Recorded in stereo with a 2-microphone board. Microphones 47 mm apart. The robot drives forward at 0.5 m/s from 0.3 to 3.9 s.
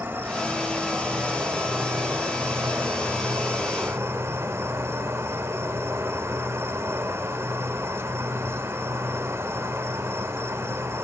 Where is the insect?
45° right (ahead or behind), 3.5 m; by 11.0 s 75° right (ahead or behind), 2.5 m.